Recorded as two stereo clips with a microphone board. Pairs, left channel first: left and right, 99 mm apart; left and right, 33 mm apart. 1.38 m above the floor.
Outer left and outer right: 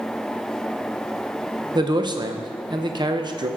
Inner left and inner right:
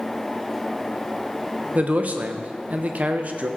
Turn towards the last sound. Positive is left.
turn(degrees=-45)  # may be behind; listen again after turning